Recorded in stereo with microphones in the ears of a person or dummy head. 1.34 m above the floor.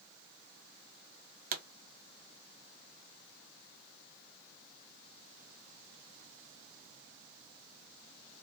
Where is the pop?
45° right (ahead or behind), 0.5 m.